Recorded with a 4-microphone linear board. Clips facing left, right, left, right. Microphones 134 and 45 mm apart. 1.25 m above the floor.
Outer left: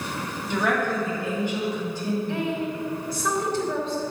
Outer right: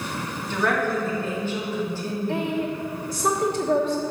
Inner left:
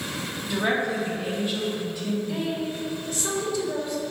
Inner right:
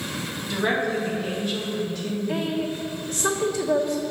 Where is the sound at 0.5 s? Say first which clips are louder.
Outer right 1 dB, inner right 1 dB; 15° left (ahead or behind), 3 m.